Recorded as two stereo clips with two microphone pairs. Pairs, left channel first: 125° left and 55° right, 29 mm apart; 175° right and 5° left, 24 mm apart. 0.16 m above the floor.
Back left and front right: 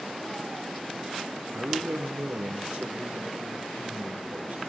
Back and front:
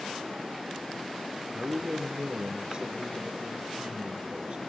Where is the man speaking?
45° right, 3.5 m.